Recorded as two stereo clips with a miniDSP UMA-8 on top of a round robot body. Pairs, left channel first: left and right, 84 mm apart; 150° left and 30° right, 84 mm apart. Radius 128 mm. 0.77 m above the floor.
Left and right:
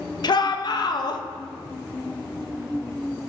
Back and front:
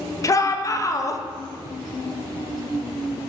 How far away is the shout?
About 0.8 m.